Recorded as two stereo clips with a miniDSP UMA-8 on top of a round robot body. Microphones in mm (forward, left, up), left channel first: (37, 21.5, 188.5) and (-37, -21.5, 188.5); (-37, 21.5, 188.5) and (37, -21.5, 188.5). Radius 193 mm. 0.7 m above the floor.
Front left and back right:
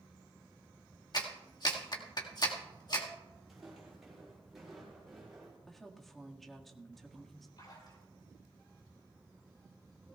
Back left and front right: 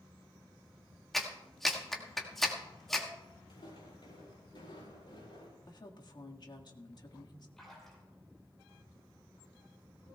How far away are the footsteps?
About 6 m.